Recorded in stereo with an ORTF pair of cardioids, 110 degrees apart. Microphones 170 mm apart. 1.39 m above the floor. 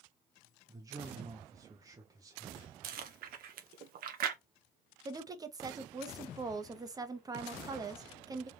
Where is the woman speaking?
20° right, 1.0 m.